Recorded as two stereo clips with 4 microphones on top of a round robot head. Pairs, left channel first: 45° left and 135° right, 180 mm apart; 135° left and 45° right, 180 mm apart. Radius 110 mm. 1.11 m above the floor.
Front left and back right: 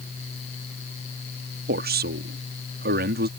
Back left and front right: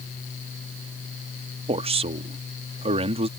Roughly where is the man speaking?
Right.